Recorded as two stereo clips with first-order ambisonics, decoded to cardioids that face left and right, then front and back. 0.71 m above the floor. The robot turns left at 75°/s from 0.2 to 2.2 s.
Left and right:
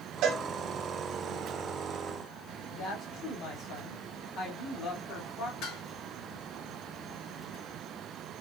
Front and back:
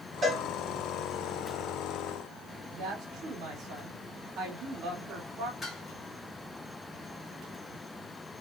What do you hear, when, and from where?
0.2 s a cowbell: 115° right, 1.2 m; by 0.4 s 130° right, 1.2 m
2.7 s a woman speaking: 140° left, 1.9 m
5.6 s dishes clattering: 75° left, 2 m